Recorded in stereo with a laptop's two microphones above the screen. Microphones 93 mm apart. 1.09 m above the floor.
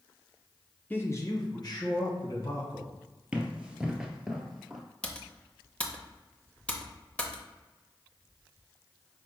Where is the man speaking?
20° left (ahead or behind), 0.6 m; by 2.9 s 55° left (ahead or behind), 2 m.